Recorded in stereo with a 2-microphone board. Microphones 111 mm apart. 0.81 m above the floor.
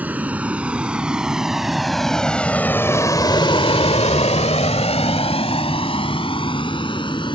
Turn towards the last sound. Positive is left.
turn(degrees=50)  # may be behind; listen again after turning